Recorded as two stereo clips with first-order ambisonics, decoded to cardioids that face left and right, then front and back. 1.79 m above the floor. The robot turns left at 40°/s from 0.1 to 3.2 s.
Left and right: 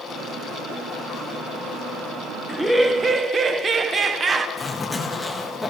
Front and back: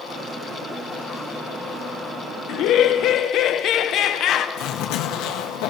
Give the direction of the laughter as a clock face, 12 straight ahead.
12 o'clock.